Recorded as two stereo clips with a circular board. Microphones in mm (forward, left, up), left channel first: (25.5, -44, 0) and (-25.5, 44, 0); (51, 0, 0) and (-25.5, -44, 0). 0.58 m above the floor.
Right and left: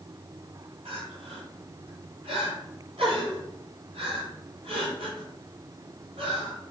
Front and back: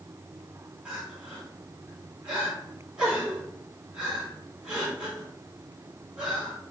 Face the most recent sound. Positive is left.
turn(degrees=130)